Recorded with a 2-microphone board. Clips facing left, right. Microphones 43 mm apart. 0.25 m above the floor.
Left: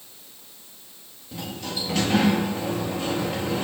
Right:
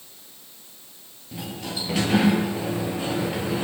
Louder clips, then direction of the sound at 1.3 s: Even; 15° right (ahead or behind).